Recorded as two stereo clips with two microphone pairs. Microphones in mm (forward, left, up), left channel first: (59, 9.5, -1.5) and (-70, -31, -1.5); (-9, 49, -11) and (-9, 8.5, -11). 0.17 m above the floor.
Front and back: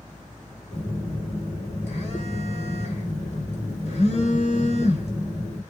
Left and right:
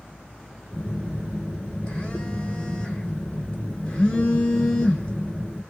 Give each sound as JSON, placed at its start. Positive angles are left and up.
{"t": 0.7, "sound": "a phone buzzing", "azimuth_deg": 25, "distance_m": 1.6}